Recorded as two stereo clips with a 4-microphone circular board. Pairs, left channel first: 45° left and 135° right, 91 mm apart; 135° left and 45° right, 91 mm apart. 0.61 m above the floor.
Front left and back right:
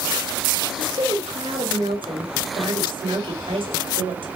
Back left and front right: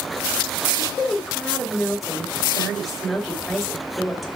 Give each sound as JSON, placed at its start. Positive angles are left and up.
{"t": 0.7, "sound": "a woman speaking", "azimuth_deg": -135, "distance_m": 2.5}